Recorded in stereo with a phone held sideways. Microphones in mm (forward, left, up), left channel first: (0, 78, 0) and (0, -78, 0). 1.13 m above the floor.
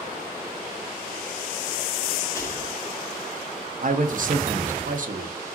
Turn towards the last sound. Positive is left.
turn(degrees=-60)  # may be behind; listen again after turning